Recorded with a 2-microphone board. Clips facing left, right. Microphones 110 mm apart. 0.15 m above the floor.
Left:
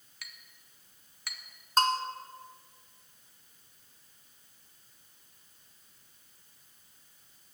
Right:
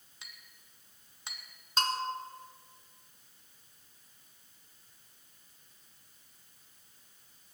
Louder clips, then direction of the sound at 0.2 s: Left 2 dB; 25° right (ahead or behind).